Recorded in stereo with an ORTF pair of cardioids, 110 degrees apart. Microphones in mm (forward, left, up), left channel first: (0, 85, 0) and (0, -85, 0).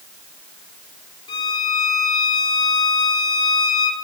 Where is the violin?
25° left, 2 m.